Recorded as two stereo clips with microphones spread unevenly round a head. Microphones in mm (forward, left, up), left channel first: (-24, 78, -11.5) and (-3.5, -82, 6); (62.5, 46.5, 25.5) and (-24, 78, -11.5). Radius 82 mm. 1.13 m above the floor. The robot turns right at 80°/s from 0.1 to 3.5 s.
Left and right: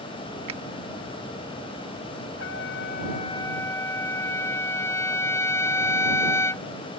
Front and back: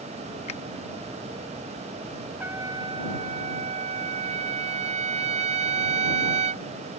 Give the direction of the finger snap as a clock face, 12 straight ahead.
1 o'clock.